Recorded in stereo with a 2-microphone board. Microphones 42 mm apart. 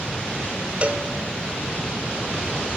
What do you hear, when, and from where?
0.8 s a cowbell: 35° right (ahead or behind), 0.7 m